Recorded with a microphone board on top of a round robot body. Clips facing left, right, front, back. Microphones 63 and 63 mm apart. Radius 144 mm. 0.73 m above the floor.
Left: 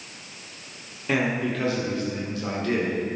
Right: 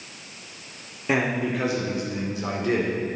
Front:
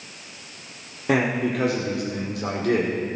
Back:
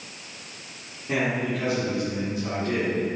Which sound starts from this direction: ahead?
A man speaking, at 1.1 s.